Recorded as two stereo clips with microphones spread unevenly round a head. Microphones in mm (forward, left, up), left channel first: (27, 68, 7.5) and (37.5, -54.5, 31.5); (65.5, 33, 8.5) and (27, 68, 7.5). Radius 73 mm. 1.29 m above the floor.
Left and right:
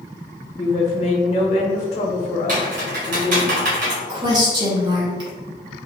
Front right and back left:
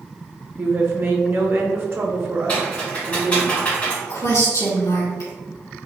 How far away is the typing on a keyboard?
About 1.1 m.